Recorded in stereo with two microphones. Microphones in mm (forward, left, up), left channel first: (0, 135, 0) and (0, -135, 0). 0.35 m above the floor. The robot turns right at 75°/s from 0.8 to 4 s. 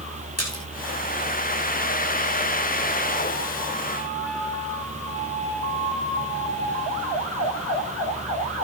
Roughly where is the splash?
Left.